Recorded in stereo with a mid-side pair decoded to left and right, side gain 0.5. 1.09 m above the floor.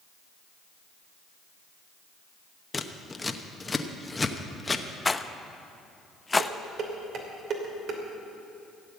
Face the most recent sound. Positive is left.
turn(degrees=-60)